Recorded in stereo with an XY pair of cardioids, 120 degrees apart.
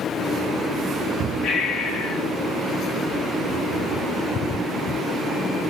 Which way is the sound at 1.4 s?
60° left.